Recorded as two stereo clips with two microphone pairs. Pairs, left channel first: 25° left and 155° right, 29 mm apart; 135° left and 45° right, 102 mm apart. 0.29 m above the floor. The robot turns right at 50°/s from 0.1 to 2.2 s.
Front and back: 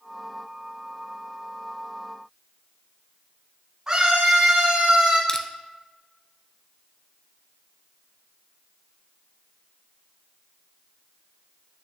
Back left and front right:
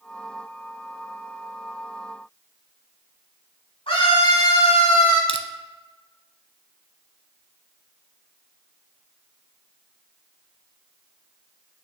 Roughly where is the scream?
Behind left.